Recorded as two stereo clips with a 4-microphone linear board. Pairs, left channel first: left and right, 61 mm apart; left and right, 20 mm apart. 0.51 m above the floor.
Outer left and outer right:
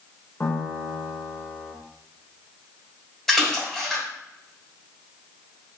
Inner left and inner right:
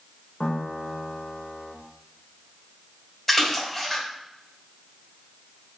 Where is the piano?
40° left (ahead or behind), 1.0 m.